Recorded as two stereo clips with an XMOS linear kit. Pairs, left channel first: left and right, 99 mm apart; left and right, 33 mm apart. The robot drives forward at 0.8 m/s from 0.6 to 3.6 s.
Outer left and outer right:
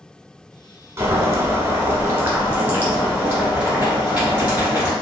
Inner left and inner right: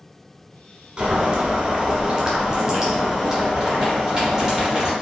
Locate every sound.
1.0 s boiling: 30° right (ahead or behind), 1.2 m; by 4.9 s 15° right (ahead or behind), 2 m